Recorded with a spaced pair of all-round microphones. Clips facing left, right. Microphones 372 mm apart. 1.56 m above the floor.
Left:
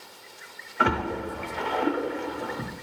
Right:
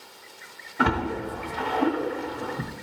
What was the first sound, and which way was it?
A splash, 45° right (ahead or behind).